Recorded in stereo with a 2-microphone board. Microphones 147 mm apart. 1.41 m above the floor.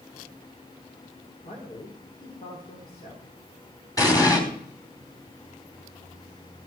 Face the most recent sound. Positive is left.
turn(degrees=25)  # may be behind; listen again after turning